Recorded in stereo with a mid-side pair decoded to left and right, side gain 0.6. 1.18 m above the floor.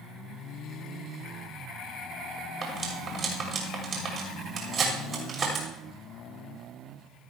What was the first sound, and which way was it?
Cutlery clinking, 40° right.